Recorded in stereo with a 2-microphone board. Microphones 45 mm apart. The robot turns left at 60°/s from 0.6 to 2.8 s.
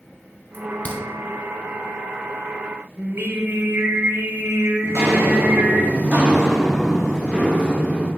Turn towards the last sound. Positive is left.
turn(degrees=35)  # may be behind; listen again after turning